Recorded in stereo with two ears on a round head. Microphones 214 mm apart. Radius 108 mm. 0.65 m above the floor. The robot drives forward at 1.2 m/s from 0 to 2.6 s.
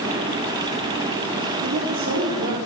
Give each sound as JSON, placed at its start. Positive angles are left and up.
{"t": 1.6, "sound": "a woman speaking", "side_deg": -60, "distance_m": 2.0}